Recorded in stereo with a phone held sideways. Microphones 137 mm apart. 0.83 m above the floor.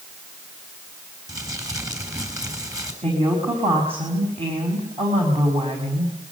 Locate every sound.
1.3 s crumpling: 25° right (ahead or behind), 6 m
3.0 s a woman speaking: 45° right (ahead or behind), 5.5 m